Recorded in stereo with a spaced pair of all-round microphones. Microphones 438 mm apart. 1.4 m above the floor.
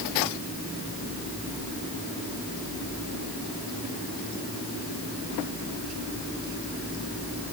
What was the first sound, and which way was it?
Only background noise.